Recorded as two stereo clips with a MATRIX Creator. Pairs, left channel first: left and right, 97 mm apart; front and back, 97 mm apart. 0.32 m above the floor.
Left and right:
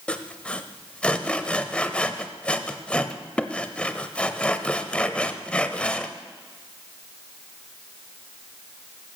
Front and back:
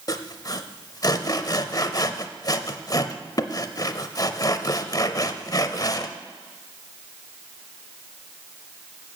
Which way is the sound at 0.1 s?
15° left.